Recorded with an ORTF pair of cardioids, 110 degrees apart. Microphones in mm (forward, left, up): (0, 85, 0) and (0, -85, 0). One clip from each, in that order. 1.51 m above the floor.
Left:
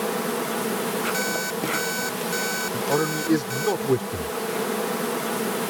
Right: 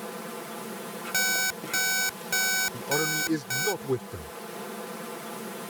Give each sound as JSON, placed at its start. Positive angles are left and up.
{"t": 0.0, "sound": "an insect", "azimuth_deg": 65}
{"t": 1.1, "sound": "an alarm clock", "azimuth_deg": -15}
{"t": 2.7, "sound": "a man speaking", "azimuth_deg": 40}